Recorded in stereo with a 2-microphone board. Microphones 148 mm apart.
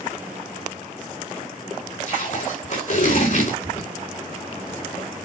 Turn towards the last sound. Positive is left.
turn(degrees=55)  # may be behind; listen again after turning